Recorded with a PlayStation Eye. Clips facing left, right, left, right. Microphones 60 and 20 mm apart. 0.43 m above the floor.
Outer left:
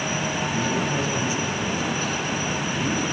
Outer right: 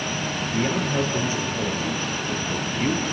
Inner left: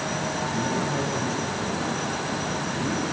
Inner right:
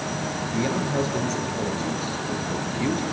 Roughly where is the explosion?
No explosion in this recording.